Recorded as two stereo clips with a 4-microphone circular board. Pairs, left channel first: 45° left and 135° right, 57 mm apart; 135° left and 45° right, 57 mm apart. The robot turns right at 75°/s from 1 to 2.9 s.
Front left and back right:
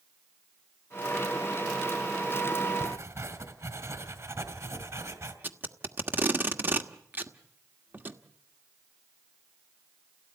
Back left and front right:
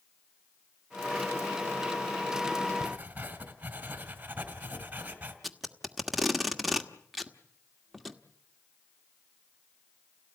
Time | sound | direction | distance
2.8 | writing | 115° right | 2.5 m
5.4 | tape being pulled | 135° right | 1.4 m